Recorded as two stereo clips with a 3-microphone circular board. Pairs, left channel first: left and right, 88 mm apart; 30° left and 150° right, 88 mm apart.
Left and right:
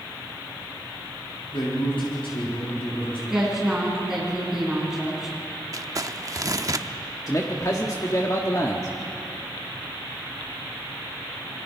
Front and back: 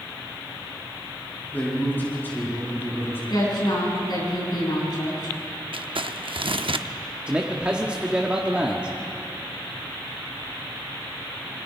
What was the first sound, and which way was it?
A man speaking, 100° left.